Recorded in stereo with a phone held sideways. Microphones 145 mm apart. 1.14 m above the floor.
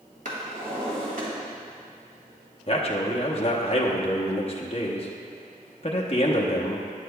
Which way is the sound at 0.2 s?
70° right (ahead or behind).